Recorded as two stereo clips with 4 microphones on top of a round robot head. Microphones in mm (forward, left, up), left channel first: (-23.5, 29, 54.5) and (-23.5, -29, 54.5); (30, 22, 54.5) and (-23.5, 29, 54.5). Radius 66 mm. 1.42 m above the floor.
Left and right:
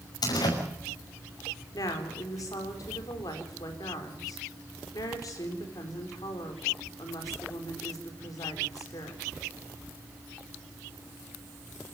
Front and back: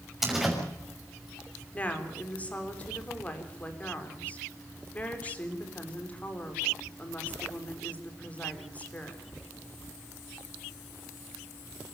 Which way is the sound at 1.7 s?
60° left.